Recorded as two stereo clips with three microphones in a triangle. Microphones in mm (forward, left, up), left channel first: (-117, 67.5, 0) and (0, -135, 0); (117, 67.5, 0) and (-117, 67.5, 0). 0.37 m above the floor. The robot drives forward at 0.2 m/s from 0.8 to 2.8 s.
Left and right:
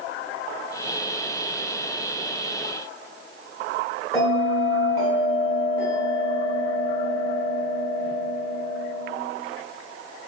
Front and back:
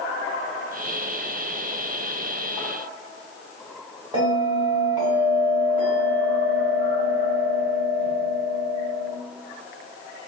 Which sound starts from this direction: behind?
A bell, at 4.1 s.